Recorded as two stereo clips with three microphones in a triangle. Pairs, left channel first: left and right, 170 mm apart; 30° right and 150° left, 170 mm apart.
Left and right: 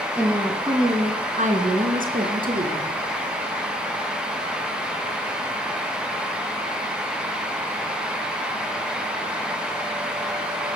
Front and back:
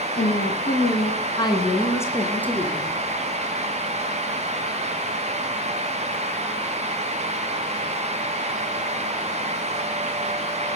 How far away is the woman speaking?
About 1.8 m.